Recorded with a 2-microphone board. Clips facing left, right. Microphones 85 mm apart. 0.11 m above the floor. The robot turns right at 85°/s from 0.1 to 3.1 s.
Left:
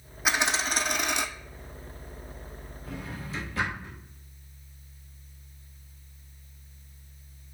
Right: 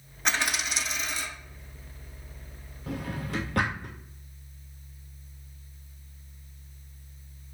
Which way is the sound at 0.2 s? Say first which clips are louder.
Left 2 dB; 5° left.